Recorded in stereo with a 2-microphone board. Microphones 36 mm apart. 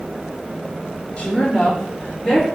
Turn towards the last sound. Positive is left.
turn(degrees=10)  # may be behind; listen again after turning